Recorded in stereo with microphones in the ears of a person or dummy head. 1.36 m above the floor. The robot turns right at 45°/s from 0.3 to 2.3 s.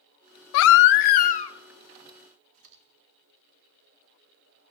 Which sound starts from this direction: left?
A baby crying, at 0.5 s.